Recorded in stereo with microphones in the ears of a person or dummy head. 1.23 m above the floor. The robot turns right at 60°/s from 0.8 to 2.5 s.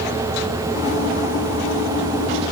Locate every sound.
Only background noise.